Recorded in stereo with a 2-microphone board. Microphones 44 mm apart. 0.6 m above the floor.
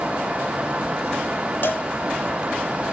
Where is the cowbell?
50° left (ahead or behind), 1.1 m.